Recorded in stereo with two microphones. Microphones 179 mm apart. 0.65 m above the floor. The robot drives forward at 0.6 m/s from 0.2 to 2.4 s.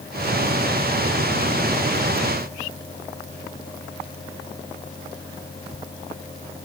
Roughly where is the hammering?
I don't hear hammering.